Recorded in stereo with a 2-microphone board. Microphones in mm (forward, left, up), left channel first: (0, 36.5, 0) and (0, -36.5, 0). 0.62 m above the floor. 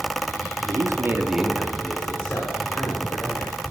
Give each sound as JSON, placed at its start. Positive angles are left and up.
{"t": 0.6, "sound": "a man speaking", "side_deg": -55, "distance_m": 1.2}